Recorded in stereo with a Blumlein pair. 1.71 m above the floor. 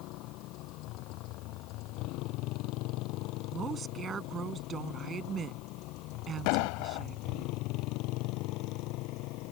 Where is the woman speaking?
25° right.